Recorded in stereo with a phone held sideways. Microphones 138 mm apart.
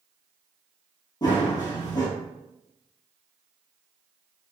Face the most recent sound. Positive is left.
turn(degrees=30)  # may be behind; listen again after turning